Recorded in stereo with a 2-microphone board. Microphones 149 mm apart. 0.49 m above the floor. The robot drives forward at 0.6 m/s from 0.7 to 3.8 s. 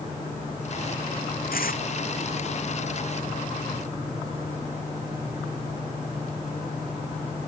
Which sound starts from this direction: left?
Tearing paper, at 1.5 s.